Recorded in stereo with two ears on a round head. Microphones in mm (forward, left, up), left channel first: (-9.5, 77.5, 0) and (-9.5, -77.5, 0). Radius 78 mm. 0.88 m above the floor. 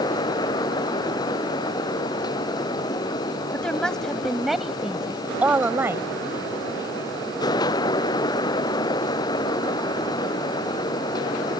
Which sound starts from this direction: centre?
A woman speaking, at 3.5 s.